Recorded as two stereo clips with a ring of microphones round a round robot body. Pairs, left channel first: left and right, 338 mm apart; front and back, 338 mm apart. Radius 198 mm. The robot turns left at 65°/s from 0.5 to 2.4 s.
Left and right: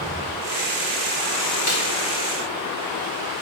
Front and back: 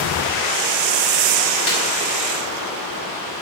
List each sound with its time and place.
1.7 s a snare drum: 40° left, 3 m; by 1.8 s 30° left, 3 m